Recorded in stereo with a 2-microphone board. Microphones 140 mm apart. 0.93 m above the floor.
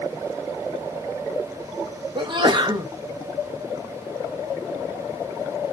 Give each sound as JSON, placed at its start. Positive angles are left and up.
{"t": 2.1, "sound": "a sneeze", "side_deg": -35, "distance_m": 1.0}